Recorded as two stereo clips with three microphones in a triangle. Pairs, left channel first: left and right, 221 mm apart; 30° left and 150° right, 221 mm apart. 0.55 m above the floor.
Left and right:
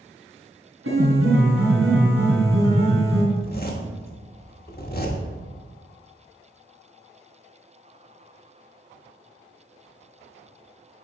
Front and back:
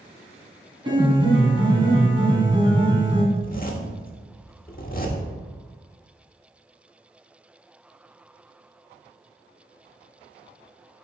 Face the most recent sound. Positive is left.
turn(degrees=65)